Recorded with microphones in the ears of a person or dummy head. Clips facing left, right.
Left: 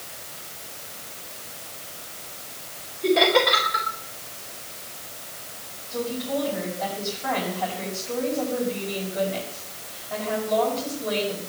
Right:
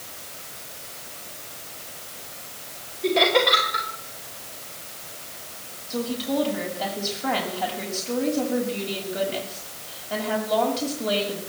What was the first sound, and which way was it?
Laughter, 5° left (ahead or behind).